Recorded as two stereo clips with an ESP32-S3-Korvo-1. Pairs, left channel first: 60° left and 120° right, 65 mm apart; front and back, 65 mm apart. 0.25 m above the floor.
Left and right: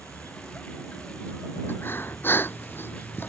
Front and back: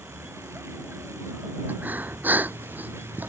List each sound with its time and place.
0.0 s a vehicle: 130° left
1.7 s breathing: 115° left